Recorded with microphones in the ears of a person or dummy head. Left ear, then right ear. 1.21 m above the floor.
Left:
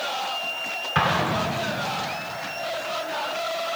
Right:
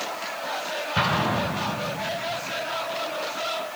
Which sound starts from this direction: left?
An explosion, at 0.9 s.